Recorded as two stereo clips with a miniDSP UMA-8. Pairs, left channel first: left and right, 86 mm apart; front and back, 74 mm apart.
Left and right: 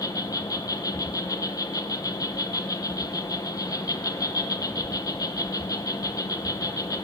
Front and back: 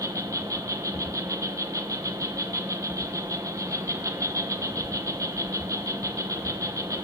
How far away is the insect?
About 0.8 m.